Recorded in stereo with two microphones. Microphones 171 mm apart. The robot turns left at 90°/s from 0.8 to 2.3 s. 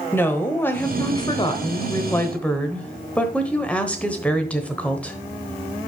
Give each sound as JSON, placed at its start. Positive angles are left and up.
{"t": 0.1, "sound": "a woman speaking", "side_deg": 15, "distance_m": 1.0}